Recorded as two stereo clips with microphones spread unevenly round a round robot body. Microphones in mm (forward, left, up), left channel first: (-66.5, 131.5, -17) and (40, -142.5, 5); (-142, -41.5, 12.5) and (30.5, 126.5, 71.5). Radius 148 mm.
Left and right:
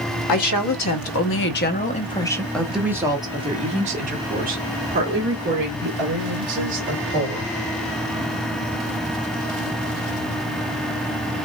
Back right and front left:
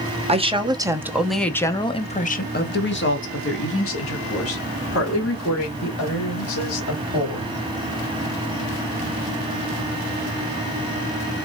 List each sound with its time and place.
0.3 s a woman speaking: 115° left, 1.2 m; by 7.5 s 120° right, 3 m